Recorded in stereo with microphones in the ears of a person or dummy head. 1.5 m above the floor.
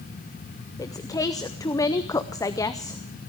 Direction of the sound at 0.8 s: 20° left (ahead or behind).